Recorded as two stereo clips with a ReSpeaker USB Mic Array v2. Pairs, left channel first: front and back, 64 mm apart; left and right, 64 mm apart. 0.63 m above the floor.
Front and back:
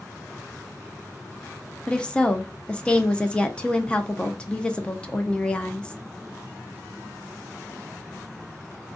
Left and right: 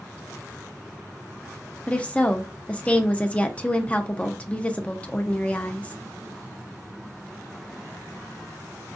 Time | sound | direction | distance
1.9 | a woman speaking | 50° left | 0.5 m